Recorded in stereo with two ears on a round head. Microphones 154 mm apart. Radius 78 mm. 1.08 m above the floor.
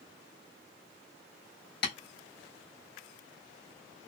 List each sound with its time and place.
1.8 s tapping: 65° left (ahead or behind), 2 m